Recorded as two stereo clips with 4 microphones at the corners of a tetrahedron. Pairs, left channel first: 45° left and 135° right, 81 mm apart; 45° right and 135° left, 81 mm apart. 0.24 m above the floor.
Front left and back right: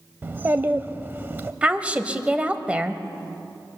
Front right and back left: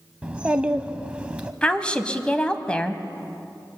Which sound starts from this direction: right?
A woman speaking, at 1.6 s.